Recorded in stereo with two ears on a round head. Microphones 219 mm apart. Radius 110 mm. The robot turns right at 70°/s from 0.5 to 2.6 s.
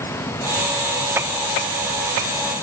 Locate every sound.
Only background noise.